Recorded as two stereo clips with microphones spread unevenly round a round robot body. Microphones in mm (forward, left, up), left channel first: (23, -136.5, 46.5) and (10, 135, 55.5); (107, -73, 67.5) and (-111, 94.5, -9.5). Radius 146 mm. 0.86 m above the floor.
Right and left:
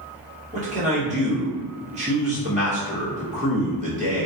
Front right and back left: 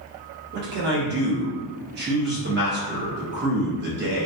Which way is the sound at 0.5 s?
155° left.